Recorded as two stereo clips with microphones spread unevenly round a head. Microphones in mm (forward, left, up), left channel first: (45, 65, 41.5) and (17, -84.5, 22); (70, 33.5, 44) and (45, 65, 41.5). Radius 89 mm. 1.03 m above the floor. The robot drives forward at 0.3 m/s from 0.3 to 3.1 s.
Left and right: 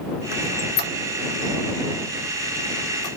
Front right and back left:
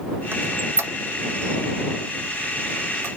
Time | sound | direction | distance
0.3 | a squeak | 105° left | 0.7 m